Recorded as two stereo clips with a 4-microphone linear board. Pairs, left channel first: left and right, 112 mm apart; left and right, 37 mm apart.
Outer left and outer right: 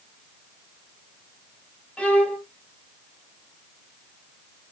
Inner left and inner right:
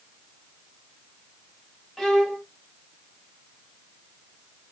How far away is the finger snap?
No finger snap in this recording.